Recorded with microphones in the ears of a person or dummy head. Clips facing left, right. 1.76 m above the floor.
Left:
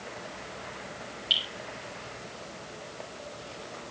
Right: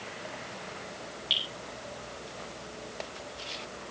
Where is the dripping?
5° left (ahead or behind), 6.5 m.